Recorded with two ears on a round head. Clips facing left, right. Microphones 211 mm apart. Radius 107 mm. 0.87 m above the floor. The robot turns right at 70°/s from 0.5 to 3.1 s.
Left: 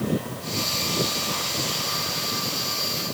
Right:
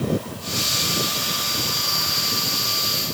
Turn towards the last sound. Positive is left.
No sound to turn to.